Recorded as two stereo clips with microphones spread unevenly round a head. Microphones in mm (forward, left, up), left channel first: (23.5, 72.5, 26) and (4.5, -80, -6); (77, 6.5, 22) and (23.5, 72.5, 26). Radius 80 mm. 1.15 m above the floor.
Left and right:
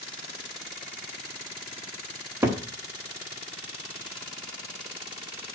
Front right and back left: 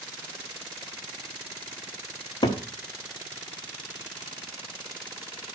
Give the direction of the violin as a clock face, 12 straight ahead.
No violin in this recording.